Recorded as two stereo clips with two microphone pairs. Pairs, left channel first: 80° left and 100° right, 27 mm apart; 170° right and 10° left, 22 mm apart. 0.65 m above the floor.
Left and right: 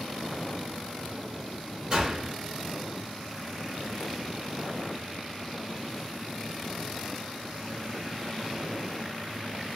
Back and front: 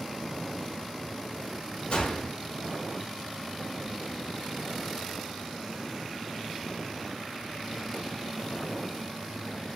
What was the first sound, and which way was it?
A gunshot, 165° right.